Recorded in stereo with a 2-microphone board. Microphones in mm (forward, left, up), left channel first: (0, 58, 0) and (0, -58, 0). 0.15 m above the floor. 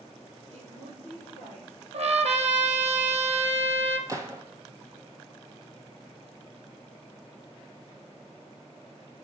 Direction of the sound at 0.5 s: 60° right (ahead or behind).